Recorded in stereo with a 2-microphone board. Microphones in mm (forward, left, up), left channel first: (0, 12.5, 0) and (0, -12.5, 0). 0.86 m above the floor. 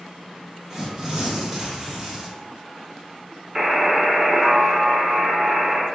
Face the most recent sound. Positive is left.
turn(degrees=-20)  # may be behind; listen again after turning